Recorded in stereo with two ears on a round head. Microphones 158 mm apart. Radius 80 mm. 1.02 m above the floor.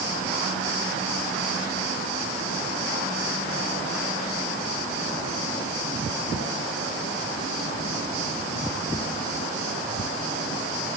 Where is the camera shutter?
I don't hear a camera shutter.